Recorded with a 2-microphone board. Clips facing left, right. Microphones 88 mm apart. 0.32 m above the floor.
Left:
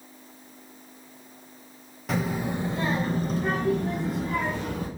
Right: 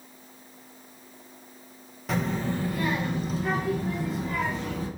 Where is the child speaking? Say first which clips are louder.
Even; centre (ahead or behind), 0.7 m; by 4.9 s 50° left (ahead or behind), 1.1 m.